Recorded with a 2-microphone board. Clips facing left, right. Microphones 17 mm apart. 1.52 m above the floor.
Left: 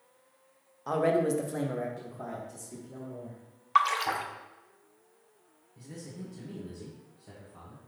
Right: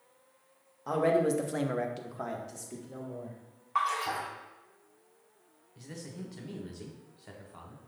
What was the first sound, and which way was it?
A man speaking, 15° left (ahead or behind).